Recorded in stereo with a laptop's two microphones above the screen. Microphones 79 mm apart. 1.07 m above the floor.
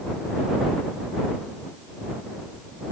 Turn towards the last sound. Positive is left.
No sound to turn to.